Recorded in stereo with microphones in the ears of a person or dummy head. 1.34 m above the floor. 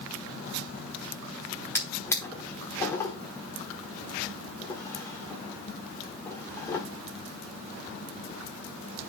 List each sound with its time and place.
1.8 s a drawer: 15° left (ahead or behind), 1.2 m